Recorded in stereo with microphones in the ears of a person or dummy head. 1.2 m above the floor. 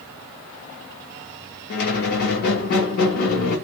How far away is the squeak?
About 0.7 m.